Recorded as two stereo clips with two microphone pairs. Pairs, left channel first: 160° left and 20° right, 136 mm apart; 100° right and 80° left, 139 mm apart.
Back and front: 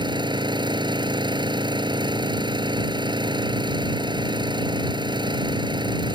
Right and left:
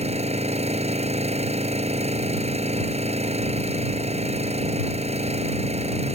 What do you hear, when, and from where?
0.0 s an engine running: 40° left